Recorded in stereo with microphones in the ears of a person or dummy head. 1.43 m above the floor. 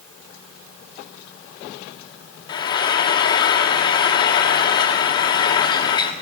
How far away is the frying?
About 1.2 m.